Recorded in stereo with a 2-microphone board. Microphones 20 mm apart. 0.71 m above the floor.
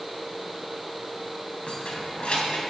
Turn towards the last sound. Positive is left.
turn(degrees=85)